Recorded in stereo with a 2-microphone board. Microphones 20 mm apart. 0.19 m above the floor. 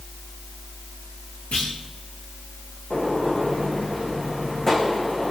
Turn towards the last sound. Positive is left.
turn(degrees=20)  # may be behind; listen again after turning